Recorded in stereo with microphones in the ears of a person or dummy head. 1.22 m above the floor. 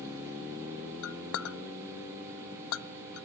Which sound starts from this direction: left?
A clink, at 1.0 s.